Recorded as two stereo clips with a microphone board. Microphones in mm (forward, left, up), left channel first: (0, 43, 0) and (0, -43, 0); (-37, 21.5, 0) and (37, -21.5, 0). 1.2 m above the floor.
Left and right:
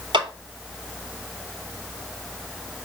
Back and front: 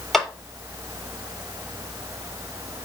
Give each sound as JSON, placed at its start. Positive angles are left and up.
{"t": 0.1, "sound": "a clap", "azimuth_deg": -125, "distance_m": 3.0}